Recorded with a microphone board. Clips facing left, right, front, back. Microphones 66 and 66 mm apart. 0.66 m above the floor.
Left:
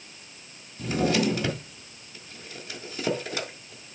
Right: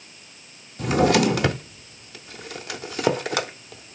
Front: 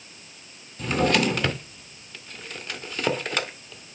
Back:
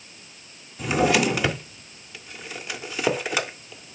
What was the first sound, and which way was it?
A drawer, 95° right.